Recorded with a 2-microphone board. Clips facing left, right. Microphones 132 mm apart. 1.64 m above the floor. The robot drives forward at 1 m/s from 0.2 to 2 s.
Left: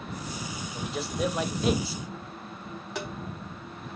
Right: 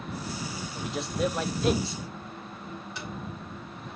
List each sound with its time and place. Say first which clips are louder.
0.7 s a man speaking: right 1 dB; centre (ahead or behind), 2 m
3.0 s tapping: left 8 dB; 70° left (ahead or behind), 3.5 m